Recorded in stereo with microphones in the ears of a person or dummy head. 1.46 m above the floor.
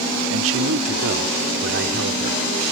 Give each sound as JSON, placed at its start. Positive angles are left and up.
{"t": 0.3, "sound": "a man speaking", "side_deg": -75}